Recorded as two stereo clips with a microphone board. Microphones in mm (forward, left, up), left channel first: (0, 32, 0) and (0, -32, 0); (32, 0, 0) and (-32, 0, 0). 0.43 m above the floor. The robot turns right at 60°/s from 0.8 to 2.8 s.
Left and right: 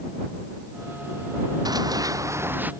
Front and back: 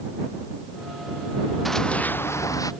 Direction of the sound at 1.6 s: 90° right.